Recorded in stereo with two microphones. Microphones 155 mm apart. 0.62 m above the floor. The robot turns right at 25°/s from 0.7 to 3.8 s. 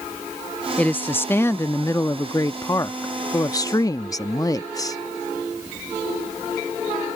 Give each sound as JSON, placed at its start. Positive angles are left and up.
{"t": 0.8, "sound": "a woman speaking", "side_deg": 10}